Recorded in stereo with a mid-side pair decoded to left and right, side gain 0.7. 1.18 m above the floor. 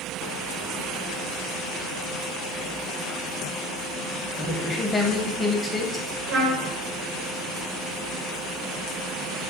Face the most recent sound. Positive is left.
turn(degrees=-55)